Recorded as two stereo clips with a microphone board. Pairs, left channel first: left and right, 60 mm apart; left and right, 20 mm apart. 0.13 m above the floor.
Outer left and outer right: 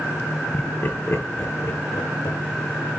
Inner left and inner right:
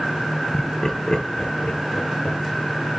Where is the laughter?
30° left (ahead or behind), 1.8 m; by 2.4 s 65° left (ahead or behind), 2.5 m.